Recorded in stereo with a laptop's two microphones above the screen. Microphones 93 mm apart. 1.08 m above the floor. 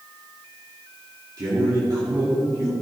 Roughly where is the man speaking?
Right.